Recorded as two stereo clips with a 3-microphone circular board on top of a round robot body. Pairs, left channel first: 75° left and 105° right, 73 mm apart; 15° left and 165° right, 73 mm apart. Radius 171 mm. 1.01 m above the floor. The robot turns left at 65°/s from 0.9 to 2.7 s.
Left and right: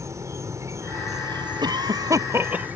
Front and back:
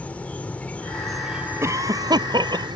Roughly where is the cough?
Right.